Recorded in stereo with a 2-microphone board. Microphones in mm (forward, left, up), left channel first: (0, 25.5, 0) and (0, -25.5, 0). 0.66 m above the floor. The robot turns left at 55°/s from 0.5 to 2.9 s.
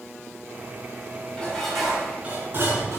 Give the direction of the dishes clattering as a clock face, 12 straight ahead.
11 o'clock.